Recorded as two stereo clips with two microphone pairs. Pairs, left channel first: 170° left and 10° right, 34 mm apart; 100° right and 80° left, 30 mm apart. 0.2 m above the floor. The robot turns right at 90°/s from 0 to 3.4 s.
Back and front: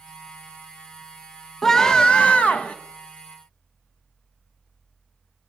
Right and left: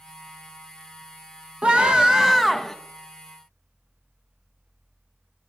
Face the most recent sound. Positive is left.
turn(degrees=-105)